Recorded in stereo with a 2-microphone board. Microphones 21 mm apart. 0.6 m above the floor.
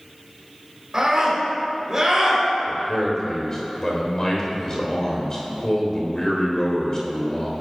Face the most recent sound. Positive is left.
turn(degrees=35)  # may be behind; listen again after turning